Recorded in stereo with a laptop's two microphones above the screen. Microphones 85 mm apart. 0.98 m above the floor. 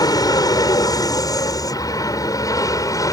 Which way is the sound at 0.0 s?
50° left (ahead or behind).